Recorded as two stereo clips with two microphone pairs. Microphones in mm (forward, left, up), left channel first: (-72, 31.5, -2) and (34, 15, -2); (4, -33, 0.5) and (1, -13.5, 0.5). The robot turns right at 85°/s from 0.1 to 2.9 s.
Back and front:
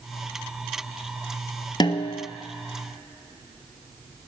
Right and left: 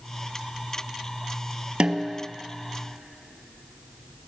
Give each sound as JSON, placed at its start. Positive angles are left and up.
{"t": 1.8, "sound": "a snare drum", "azimuth_deg": 125, "distance_m": 0.6}